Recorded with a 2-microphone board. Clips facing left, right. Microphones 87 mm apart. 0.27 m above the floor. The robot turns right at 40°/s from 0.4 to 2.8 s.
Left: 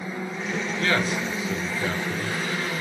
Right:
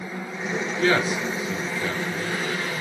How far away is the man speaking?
About 4.5 m.